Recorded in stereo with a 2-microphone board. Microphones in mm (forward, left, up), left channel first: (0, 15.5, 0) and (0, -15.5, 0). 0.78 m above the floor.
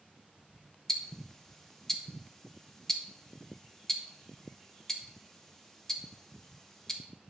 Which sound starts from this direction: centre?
Ticking, at 0.9 s.